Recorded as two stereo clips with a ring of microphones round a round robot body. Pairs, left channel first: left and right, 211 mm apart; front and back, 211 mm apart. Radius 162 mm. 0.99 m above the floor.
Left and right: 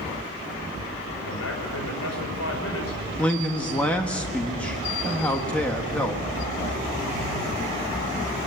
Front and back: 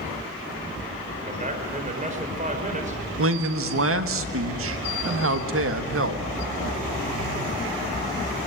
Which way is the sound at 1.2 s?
125° left.